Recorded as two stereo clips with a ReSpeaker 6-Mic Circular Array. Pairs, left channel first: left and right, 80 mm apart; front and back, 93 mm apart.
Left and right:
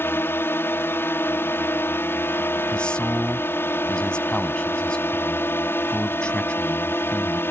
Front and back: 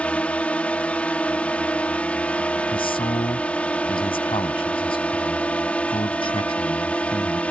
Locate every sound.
0.0 s a drone: 60° left
2.7 s a man speaking: 15° left